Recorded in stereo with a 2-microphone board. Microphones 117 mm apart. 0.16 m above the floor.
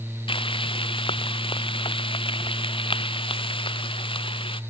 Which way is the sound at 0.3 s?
45° left (ahead or behind).